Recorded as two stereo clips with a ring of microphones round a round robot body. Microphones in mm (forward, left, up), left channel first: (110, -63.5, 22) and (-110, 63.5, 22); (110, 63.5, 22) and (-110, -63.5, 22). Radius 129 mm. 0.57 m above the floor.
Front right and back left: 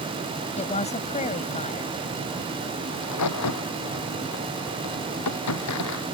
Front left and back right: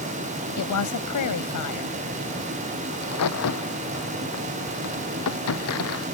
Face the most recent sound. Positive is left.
turn(degrees=-5)